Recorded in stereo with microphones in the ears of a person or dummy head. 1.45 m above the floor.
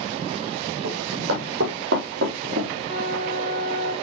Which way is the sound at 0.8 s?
70° right (ahead or behind).